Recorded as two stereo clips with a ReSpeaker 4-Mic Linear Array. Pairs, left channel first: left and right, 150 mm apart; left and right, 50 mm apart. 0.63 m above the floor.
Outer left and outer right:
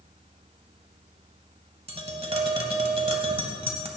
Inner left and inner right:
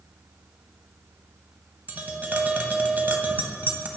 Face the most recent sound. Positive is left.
turn(degrees=-40)  # may be behind; listen again after turning